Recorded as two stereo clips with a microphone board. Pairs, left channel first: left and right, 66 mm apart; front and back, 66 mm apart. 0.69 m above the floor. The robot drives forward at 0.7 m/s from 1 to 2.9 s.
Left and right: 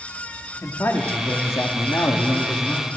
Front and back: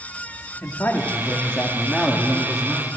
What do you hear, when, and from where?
0.6 s a man speaking: 50° left, 1.7 m; by 2.9 s 110° left, 1.5 m